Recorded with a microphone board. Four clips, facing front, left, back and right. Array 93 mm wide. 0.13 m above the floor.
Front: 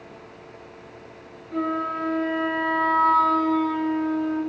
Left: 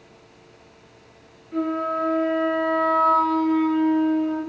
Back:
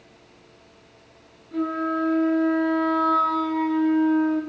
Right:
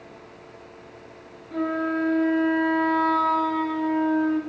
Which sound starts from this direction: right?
A flute, at 1.5 s.